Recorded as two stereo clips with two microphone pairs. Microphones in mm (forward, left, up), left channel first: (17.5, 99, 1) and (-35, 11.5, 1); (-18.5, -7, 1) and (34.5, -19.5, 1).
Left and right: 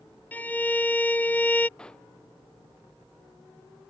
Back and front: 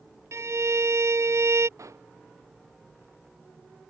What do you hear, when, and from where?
0.3 s a violin: 10° right
1.8 s a pop: 20° right